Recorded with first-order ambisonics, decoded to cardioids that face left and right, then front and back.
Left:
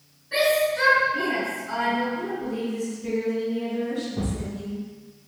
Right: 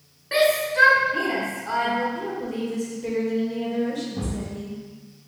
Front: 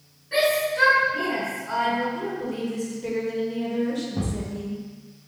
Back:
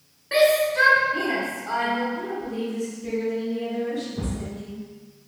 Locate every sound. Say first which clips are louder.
0.3 s a shout: right 1 dB, back 3 dB; 130° right, 0.8 m
2.1 s a woman speaking: even, even; 40° right, 1.2 m
4.2 s a thud: even, front 2 dB; straight ahead, 1.1 m